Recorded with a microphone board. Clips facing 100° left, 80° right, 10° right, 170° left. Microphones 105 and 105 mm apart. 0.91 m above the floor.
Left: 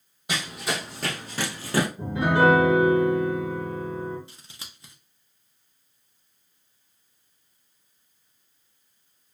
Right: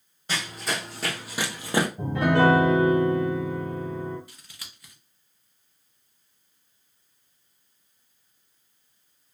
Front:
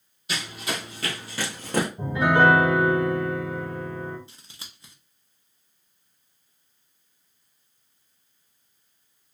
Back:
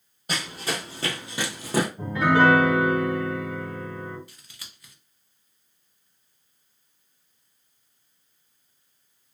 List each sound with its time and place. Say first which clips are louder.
0.3 s running footsteps: left 1 dB, back 1 dB; 175° left, 1.3 m; by 1.9 s 105° right, 1.0 m
2.0 s a piano: even, even; 85° right, 1.5 m
4.3 s scissors: left 2 dB, front 1 dB; 45° left, 0.7 m